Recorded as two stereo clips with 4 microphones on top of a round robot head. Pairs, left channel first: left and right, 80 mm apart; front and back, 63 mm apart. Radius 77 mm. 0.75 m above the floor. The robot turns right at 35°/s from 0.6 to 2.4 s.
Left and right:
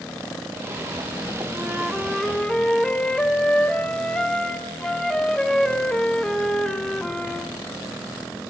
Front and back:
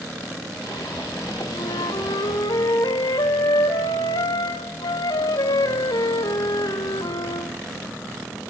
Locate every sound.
1.5 s a flute: 20° right, 1.9 m; by 7.5 s 10° left, 1.9 m